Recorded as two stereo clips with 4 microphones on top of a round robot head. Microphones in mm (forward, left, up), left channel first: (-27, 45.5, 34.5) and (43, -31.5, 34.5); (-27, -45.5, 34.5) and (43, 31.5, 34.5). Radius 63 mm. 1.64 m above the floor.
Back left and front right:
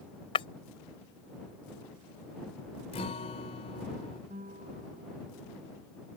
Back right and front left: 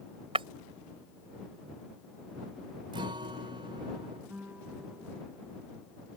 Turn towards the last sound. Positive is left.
turn(degrees=-30)